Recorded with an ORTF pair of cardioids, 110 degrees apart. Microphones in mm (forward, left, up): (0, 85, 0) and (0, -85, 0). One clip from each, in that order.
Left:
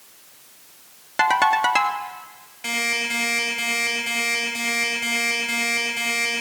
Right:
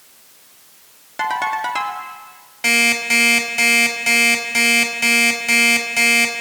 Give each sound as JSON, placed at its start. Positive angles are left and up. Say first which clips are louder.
{"t": 1.2, "sound": "a ringtone", "louder": "left 3 dB", "azimuth_deg": 30, "distance_m": 2.0}
{"t": 2.6, "sound": "an alarm clock", "louder": "right 8 dB", "azimuth_deg": -55, "distance_m": 5.0}